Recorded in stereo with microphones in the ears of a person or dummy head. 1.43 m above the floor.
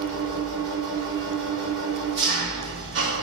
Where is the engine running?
75° right (ahead or behind), 1.6 m.